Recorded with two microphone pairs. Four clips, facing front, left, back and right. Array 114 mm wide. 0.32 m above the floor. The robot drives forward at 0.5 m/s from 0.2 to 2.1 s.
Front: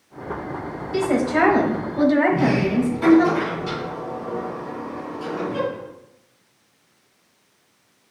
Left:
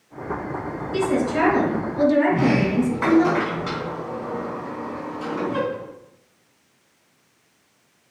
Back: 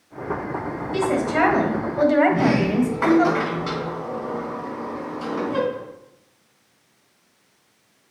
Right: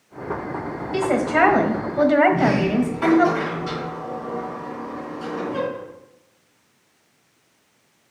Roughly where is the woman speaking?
Right.